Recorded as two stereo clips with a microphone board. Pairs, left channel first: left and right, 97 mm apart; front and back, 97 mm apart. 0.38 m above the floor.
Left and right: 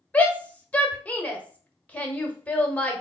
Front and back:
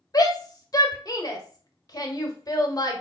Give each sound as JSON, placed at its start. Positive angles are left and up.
{"t": 0.1, "sound": "a shout", "azimuth_deg": 20, "distance_m": 1.1}